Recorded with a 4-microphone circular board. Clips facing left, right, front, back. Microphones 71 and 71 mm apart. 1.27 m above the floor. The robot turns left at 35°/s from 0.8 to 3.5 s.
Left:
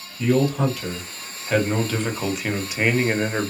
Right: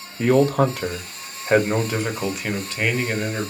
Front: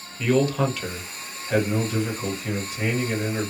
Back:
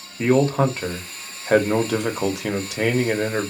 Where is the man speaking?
125° right, 0.7 m; by 3.5 s 140° left, 0.7 m.